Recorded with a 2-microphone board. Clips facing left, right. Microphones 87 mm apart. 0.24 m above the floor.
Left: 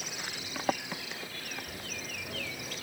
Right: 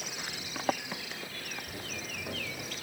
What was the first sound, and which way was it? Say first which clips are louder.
Footsteps: right 1 dB; 15° right (ahead or behind).